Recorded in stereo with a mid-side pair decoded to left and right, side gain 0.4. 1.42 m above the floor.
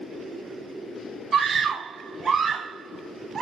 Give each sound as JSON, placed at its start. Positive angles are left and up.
{"t": 1.3, "sound": "a scream", "azimuth_deg": -55, "distance_m": 1.1}